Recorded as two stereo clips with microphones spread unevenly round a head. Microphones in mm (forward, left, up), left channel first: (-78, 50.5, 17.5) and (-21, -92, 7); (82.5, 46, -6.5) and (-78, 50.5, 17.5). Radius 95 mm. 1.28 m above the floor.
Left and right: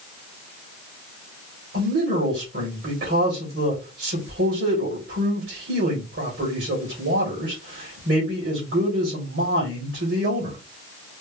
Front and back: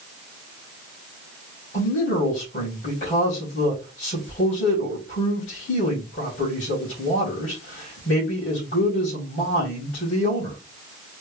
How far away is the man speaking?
About 2.5 m.